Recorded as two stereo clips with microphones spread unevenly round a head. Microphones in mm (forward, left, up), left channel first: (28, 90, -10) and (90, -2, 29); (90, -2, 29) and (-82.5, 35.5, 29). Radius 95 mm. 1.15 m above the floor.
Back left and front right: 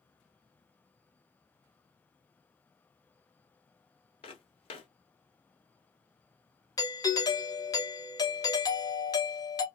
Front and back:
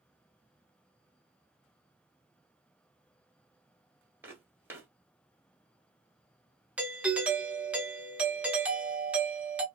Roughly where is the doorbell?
Left.